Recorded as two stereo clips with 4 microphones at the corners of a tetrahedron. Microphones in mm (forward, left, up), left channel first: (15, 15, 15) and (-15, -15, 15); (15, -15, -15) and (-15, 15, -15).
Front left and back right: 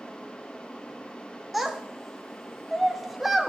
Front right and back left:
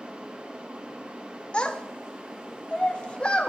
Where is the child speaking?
55° right, 0.5 m.